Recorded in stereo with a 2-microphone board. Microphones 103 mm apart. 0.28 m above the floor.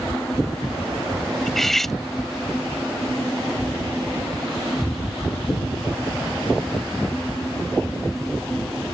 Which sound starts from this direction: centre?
Cutlery clinking, at 1.5 s.